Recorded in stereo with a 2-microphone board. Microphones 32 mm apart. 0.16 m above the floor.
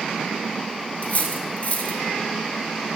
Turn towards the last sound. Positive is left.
turn(degrees=55)  # may be behind; listen again after turning